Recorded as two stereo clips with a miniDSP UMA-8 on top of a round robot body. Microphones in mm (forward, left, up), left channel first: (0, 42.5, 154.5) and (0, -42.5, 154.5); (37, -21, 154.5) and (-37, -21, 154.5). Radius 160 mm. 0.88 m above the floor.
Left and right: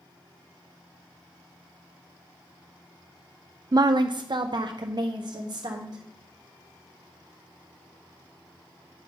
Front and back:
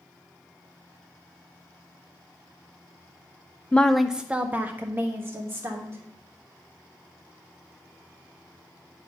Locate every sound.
3.7 s a woman speaking: 65° right, 0.5 m; by 6.0 s 125° right, 1.8 m